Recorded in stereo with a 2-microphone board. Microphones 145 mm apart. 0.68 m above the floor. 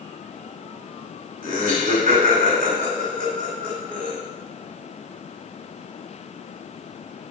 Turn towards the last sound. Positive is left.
turn(degrees=-70)  # may be behind; listen again after turning